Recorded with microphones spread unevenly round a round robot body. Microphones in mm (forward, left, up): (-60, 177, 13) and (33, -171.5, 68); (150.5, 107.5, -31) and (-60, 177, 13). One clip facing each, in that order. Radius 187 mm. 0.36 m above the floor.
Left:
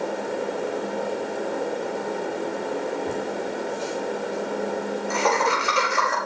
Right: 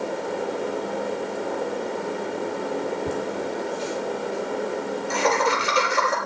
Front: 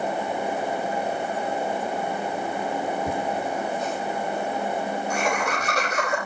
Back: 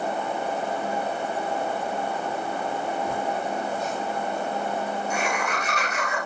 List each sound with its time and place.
3.1 s laughter: 65° right, 9.5 m; by 6.2 s 80° right, 9 m